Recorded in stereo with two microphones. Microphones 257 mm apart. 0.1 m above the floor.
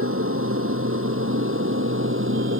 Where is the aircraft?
55° right (ahead or behind); by 2.6 s 50° right (ahead or behind).